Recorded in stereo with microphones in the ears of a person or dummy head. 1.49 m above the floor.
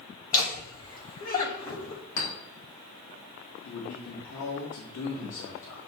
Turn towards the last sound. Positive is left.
turn(degrees=70)  # may be behind; listen again after turning